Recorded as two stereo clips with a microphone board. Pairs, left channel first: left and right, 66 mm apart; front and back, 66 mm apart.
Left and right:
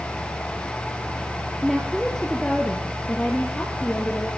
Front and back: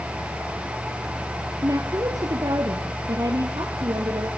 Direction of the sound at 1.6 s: Straight behind.